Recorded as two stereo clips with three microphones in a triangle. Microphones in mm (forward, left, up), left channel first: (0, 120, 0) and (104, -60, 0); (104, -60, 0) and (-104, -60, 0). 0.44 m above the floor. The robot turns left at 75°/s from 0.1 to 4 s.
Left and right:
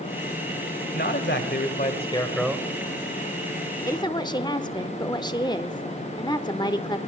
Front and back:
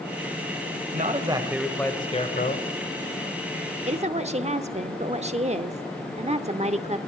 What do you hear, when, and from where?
0.9 s a man speaking: 145° left, 2.0 m; by 2.7 s 15° left, 2.0 m
3.9 s a woman speaking: straight behind, 0.9 m; by 7.0 s 170° left, 0.9 m